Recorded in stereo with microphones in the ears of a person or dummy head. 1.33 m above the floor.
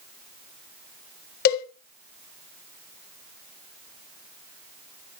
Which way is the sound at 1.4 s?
50° left (ahead or behind).